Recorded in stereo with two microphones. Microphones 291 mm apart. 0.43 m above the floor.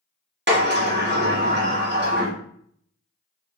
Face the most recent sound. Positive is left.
turn(degrees=-40)  # may be behind; listen again after turning